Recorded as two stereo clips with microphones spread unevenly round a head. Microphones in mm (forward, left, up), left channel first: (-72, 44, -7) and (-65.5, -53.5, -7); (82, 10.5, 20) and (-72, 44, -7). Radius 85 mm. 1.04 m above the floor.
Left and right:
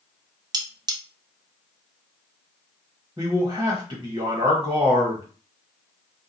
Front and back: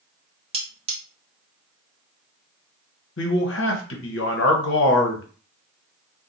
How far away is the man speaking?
About 1.0 m.